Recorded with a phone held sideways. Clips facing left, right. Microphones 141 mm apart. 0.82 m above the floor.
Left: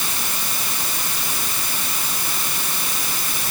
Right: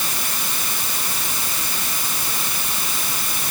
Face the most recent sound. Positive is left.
No sound to turn to.